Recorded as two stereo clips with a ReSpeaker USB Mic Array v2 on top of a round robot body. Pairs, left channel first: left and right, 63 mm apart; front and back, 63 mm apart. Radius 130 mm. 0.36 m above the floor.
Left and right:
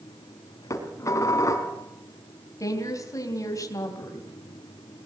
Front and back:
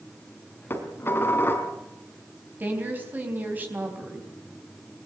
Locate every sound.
0.7 s dishes clattering: 55° left, 3.5 m
2.6 s a woman speaking: 120° left, 4 m